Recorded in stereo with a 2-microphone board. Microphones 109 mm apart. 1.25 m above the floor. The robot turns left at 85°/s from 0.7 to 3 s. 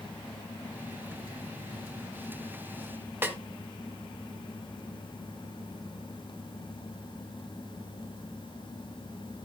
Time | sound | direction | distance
3.2 | a snare drum | 20° right (ahead or behind) | 1.2 m